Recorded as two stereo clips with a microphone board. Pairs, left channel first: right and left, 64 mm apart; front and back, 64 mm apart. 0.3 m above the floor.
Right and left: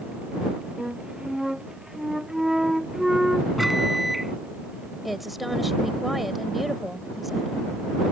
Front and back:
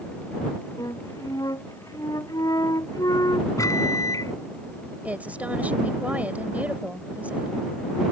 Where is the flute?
5° left.